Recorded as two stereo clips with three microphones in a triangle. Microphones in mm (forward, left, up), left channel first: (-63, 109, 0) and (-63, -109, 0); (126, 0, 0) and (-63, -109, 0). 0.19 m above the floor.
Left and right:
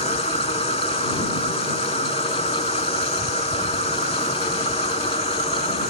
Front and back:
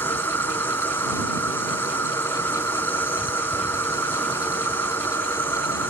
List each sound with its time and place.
0.0 s an insect: 100° left